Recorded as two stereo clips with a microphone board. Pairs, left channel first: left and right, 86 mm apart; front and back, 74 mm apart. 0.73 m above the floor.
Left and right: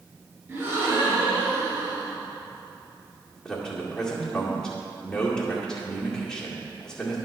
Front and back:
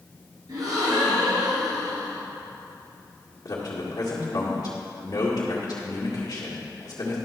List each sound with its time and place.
0.5 s a gasp: 150° right, 2.5 m
3.5 s a man speaking: 10° left, 1.9 m